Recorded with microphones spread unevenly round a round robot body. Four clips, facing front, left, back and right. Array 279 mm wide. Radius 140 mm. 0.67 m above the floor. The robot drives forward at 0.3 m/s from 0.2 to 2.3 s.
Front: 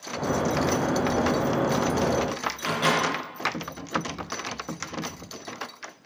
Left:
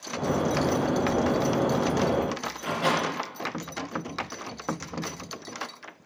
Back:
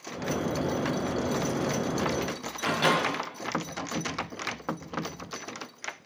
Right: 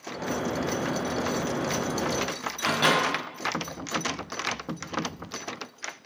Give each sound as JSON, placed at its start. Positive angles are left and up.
{"t": 2.6, "sound": "a microwave", "azimuth_deg": -125, "distance_m": 1.0}